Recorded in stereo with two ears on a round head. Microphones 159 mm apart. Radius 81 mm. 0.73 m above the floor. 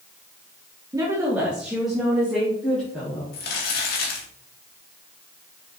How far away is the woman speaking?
About 1.3 m.